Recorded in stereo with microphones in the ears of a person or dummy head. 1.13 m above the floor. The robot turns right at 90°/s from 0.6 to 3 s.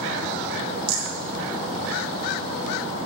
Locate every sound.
0.9 s a rattle: 30° right (ahead or behind), 2 m; by 1.1 s 15° right (ahead or behind), 2 m